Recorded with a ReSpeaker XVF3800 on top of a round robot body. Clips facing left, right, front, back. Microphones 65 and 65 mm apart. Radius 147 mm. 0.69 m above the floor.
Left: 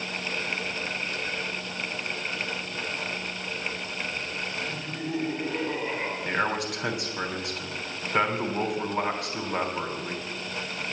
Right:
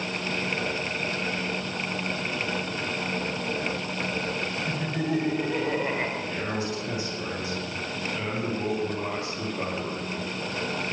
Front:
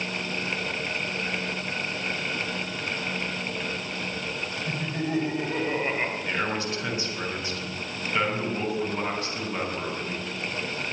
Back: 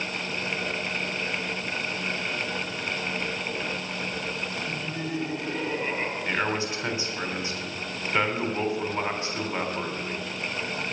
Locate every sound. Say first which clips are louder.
4.7 s laughter: right 5 dB, front 2 dB; 50° right, 4 m; by 6.2 s 70° right, 5 m
6.2 s a man speaking: left 3 dB, back 1 dB; 110° left, 3.5 m